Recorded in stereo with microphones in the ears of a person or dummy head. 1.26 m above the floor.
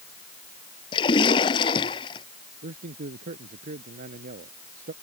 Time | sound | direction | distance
0.9 | a splash | 25° left (ahead or behind) | ?
2.6 | a man speaking | 45° right (ahead or behind) | ?